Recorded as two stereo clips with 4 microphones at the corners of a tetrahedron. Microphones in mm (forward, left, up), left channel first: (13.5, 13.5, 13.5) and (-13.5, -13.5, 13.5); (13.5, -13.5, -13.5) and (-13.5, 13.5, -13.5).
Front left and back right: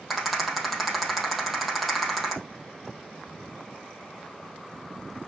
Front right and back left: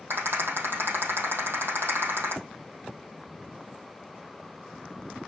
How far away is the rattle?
About 3.5 m.